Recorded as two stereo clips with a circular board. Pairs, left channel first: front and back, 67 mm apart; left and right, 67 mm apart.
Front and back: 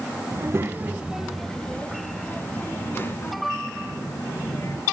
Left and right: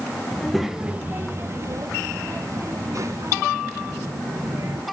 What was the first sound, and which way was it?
A child speaking, 170° left.